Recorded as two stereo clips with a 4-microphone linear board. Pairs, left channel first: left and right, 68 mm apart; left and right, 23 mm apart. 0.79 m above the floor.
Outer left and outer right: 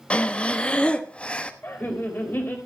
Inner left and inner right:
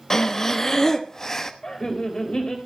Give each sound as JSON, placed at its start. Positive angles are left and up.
{"t": 0.1, "sound": "breathing", "side_deg": 20, "distance_m": 1.0}
{"t": 1.6, "sound": "laughter", "side_deg": 30, "distance_m": 3.5}